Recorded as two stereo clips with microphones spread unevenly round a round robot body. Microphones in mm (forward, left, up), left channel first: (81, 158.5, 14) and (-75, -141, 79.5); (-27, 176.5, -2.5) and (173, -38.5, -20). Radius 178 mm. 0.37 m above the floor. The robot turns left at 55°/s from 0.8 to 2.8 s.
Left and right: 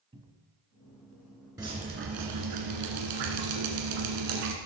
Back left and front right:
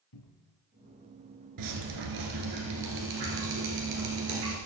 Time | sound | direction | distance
0.1 | a cupboard door | 165° left | 1.2 m
1.6 | dripping | 35° right | 2.0 m